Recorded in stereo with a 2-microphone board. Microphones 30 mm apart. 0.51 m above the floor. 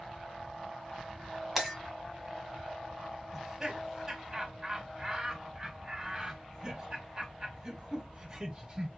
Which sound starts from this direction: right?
Laughter, at 3.3 s.